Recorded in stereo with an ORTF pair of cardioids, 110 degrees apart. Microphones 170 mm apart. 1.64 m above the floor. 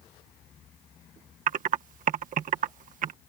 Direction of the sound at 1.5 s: 50° right.